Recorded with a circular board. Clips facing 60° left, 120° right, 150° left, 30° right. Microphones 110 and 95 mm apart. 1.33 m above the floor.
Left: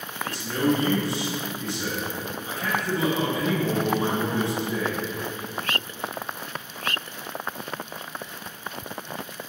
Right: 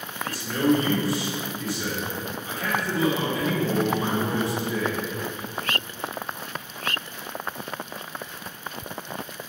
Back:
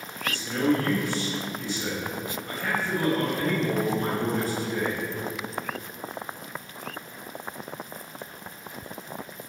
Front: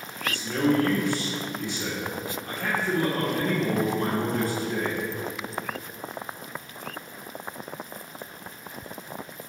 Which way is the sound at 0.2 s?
5° right.